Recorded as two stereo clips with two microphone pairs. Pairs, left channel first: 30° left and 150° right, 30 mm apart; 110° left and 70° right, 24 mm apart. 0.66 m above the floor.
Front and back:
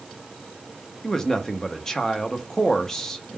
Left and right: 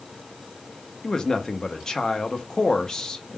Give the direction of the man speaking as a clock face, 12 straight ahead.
9 o'clock.